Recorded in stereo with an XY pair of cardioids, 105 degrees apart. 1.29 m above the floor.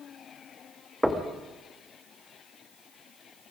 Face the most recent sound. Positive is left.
turn(degrees=-5)